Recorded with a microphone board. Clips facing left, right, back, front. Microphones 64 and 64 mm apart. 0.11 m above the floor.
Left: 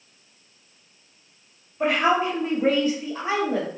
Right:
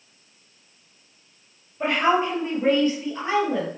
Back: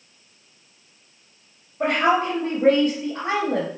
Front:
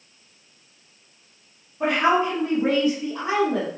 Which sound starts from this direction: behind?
A woman speaking, at 1.8 s.